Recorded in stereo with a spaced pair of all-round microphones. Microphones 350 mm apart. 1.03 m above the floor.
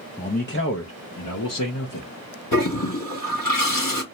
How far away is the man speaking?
About 0.6 m.